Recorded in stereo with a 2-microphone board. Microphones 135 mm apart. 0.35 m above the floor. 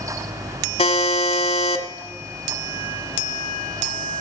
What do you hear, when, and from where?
0.8 s a buzzer: 55° left (ahead or behind), 1.4 m